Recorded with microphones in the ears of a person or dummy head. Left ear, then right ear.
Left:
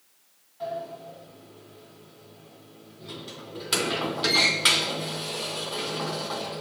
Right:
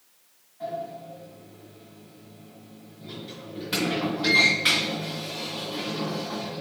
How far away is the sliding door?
About 2.5 m.